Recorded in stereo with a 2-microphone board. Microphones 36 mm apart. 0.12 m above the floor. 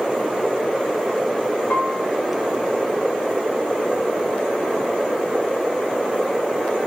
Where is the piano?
35° left (ahead or behind), 1.2 m.